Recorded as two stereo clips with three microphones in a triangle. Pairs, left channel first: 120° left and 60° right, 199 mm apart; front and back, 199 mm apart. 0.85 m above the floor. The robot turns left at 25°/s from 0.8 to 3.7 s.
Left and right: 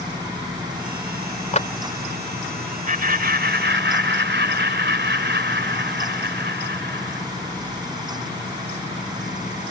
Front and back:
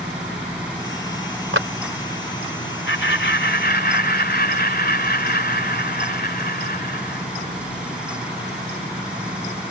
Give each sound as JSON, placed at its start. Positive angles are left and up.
{"t": 1.5, "sound": "a clap", "azimuth_deg": 175}
{"t": 2.9, "sound": "laughter", "azimuth_deg": -15}